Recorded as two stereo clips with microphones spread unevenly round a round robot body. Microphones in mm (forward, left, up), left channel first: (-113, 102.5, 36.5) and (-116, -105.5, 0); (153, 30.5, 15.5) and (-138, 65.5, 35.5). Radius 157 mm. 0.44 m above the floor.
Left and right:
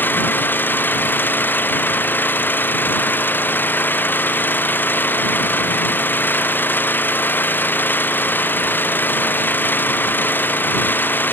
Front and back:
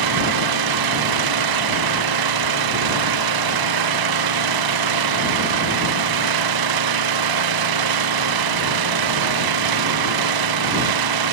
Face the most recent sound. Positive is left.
turn(degrees=170)